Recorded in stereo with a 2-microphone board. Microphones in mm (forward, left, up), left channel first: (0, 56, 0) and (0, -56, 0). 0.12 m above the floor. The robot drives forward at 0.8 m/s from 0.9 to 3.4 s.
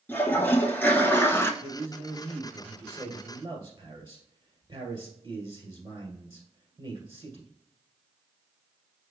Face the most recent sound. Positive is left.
turn(degrees=-35)  # may be behind; listen again after turning